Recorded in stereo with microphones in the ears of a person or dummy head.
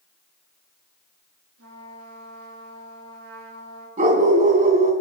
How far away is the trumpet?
About 8.5 m.